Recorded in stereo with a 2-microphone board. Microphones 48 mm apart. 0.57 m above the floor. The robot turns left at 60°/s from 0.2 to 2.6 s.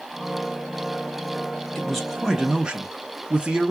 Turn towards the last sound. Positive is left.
turn(degrees=-35)